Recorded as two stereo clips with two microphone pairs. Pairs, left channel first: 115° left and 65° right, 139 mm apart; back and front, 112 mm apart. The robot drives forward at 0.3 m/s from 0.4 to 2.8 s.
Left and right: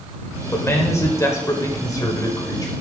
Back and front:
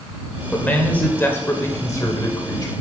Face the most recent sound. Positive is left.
turn(degrees=160)